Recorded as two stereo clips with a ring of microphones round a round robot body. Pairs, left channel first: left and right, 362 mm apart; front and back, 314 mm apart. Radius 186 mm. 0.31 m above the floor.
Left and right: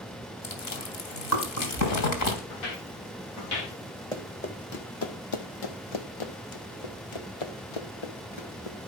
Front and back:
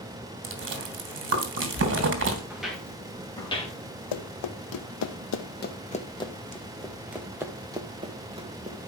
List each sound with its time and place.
0.4 s chewing: 130° left, 3 m
2.5 s footsteps: 95° left, 4.5 m; by 3.8 s 70° left, 4.5 m
4.1 s running footsteps: 10° left, 1.3 m; by 8.8 s 110° left, 3 m